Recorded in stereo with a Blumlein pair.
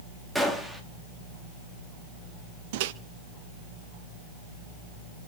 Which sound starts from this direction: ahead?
A gunshot, at 0.3 s.